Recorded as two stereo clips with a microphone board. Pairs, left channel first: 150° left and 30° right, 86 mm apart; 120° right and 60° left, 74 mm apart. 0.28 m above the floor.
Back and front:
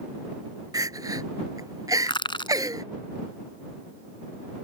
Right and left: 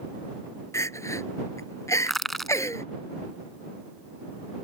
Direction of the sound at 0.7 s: 75° right.